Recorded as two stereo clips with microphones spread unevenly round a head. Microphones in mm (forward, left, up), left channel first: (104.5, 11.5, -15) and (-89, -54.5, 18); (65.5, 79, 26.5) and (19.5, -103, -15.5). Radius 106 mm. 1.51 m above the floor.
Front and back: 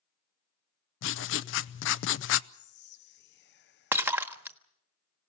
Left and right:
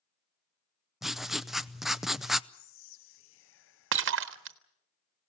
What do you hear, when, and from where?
1.0 s writing: 10° right, 0.6 m
2.5 s whispering: 65° left, 0.7 m
3.9 s breaking glass: 85° right, 1.3 m